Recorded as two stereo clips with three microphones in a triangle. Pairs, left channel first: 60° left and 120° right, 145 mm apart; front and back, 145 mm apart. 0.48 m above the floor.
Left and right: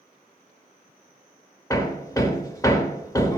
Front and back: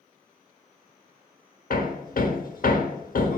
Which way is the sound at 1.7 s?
5° right.